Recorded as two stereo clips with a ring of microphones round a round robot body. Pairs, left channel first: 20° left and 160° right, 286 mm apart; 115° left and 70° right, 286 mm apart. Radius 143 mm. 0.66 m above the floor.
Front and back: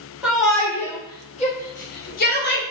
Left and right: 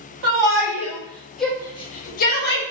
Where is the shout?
70° right, 0.9 m; by 2.6 s 70° left, 1.1 m.